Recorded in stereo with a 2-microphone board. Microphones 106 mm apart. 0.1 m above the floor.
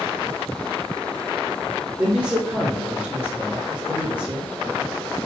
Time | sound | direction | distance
2.0 | a man speaking | 15° right (ahead or behind) | 1.2 m